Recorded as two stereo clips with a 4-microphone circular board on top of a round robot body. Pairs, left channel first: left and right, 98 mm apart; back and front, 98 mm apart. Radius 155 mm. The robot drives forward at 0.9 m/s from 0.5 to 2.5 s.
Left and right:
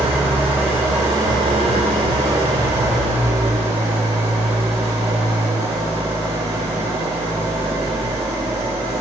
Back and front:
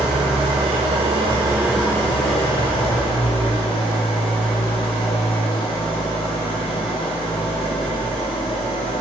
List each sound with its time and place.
0.0 s an engine running: 15° right, 1.2 m; by 9.0 s 155° right, 0.8 m